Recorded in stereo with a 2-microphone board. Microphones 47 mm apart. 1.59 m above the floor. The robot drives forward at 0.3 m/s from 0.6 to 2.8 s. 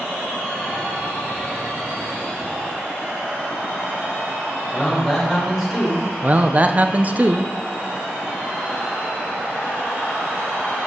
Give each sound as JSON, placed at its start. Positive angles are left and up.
{"t": 4.7, "sound": "a man speaking", "side_deg": -5, "distance_m": 4.0}
{"t": 6.2, "sound": "a man speaking", "side_deg": -35, "distance_m": 0.5}